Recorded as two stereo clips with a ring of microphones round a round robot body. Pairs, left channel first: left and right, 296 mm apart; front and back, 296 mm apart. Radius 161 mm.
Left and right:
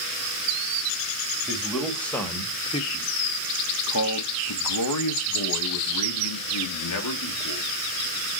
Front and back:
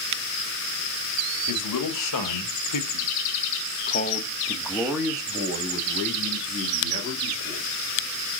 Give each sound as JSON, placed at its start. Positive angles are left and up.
{"t": 1.5, "sound": "a man speaking", "azimuth_deg": -5, "distance_m": 1.6}